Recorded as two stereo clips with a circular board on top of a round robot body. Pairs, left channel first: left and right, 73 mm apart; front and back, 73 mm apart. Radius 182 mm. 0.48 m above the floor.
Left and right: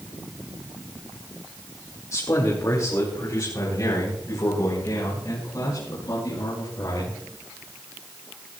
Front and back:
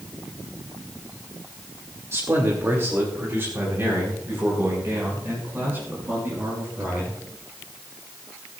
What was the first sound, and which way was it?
A man speaking, 130° left.